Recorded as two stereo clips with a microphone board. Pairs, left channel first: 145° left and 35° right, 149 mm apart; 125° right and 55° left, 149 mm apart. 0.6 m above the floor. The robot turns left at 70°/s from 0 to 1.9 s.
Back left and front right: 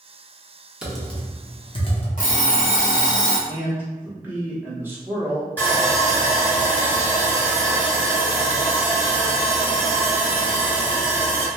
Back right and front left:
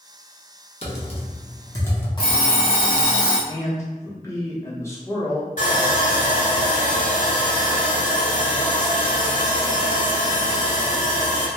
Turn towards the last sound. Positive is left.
turn(degrees=-140)